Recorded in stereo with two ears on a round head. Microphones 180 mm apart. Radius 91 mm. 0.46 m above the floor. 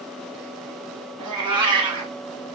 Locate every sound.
1.2 s a cat meowing: 25° right (ahead or behind), 1.4 m